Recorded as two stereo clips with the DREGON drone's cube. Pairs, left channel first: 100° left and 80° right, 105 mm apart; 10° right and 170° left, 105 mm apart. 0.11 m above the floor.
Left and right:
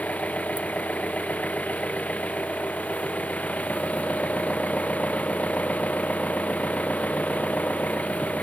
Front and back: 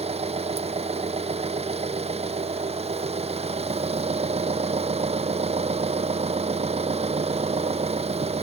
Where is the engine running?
175° left.